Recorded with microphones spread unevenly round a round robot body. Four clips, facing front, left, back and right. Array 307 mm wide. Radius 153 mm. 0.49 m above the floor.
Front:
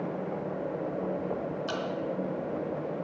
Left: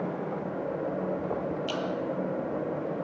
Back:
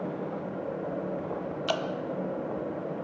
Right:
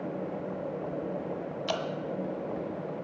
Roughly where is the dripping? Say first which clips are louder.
Even, back 4 dB; behind right.